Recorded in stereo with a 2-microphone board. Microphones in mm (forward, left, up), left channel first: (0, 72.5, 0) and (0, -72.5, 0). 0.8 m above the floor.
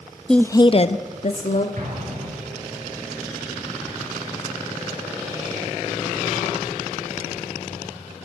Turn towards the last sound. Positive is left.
turn(degrees=-65)  # may be behind; listen again after turning